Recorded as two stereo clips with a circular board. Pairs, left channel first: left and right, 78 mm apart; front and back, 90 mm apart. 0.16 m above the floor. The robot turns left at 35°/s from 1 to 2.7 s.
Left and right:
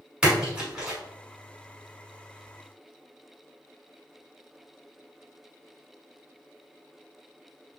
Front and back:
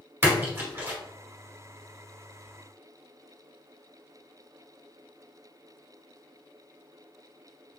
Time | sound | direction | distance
0.2 | a splash | 155° right | 1.2 m